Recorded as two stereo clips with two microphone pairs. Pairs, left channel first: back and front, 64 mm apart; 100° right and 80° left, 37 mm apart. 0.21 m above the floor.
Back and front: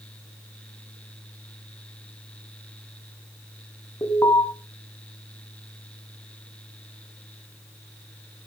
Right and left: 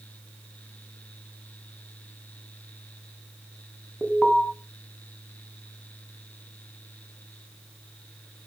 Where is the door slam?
I don't hear a door slam.